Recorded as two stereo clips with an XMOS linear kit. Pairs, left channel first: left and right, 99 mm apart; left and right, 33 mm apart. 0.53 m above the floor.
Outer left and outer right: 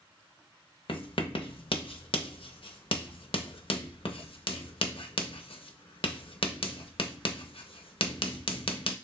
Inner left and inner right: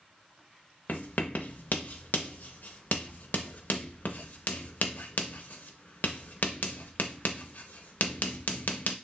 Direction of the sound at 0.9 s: 65° left (ahead or behind).